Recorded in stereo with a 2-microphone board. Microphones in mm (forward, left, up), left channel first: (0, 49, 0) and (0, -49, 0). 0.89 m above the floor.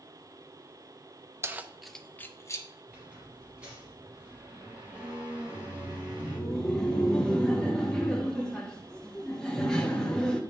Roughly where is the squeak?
Centre.